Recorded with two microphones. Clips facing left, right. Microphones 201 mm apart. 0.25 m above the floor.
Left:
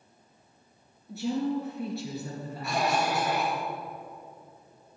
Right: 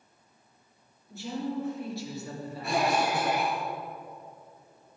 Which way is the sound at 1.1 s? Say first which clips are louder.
Left 5 dB; 70° left (ahead or behind).